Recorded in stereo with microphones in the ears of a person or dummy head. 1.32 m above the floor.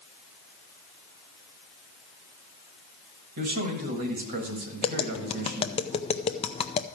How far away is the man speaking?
About 1.6 m.